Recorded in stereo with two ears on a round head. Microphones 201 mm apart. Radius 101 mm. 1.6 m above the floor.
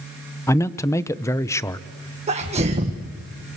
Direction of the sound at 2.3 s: 30° right (ahead or behind).